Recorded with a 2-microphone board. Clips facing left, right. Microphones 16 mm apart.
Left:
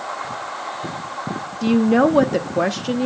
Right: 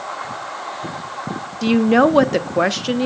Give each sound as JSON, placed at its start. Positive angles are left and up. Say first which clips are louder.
{"t": 1.6, "sound": "a woman speaking", "louder": "right 2 dB", "side_deg": -25, "distance_m": 0.8}